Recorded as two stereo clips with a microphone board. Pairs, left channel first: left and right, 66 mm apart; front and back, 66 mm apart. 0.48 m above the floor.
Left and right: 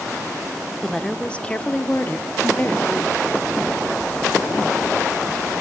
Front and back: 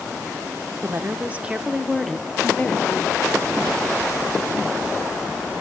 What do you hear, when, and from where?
0.8 s a woman speaking: 165° left, 1.0 m; by 3.2 s 50° left, 1.2 m